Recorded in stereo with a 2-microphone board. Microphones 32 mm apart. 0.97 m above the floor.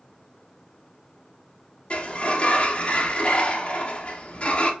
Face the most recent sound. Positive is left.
turn(degrees=40)  # may be behind; listen again after turning